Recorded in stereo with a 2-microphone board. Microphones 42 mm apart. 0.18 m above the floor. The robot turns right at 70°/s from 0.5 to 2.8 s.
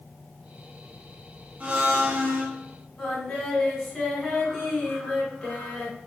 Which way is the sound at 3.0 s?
15° left (ahead or behind).